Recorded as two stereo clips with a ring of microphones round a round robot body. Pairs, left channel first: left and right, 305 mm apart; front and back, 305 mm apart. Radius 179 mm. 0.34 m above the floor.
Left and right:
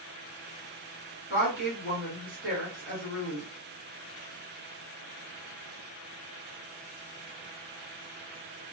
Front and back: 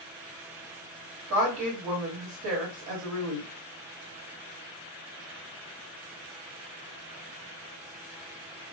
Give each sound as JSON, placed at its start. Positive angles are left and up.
{"t": 1.3, "sound": "a woman speaking", "azimuth_deg": -165, "distance_m": 1.7}